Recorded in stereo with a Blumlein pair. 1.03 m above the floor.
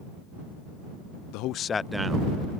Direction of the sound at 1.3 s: 45° left.